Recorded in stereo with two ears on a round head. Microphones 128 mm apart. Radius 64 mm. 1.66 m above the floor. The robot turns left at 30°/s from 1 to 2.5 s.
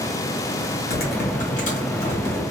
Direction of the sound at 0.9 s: 70° left.